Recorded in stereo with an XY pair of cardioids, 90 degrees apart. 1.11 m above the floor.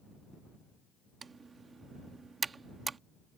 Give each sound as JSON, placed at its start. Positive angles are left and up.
{"t": 1.2, "sound": "typing on a keyboard", "azimuth_deg": -40}